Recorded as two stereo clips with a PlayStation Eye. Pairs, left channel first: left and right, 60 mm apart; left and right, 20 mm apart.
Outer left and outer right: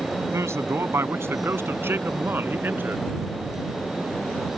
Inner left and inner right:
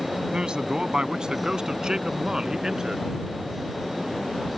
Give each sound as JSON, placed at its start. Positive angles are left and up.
{"t": 0.3, "sound": "a man speaking", "side_deg": -50}